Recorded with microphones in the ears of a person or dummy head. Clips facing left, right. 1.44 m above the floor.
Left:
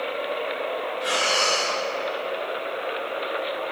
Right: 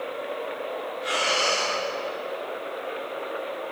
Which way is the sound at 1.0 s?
60° left (ahead or behind).